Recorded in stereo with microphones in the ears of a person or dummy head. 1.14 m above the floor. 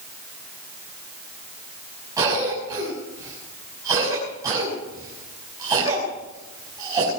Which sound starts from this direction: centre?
A cough, at 2.2 s.